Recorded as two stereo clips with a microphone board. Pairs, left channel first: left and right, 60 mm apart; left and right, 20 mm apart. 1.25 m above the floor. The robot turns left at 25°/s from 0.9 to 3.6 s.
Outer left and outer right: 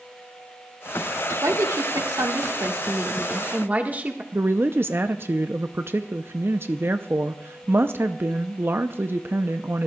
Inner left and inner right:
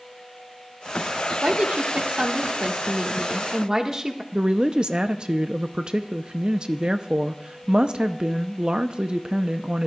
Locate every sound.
1.4 s a woman speaking: 95° right, 1.6 m; by 4.2 s 150° right, 1.6 m
4.3 s a woman speaking: 45° right (ahead or behind), 0.6 m